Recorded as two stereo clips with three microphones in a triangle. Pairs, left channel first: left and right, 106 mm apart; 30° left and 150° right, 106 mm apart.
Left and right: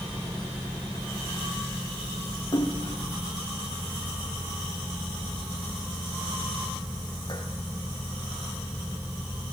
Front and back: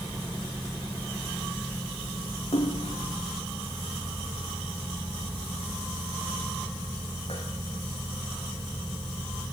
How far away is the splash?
About 3 m.